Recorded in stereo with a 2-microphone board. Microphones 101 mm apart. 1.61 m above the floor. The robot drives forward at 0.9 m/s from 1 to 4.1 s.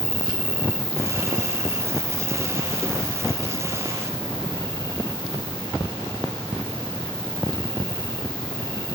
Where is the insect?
70° left (ahead or behind), 1.7 m; by 9.0 s 30° left (ahead or behind), 3 m.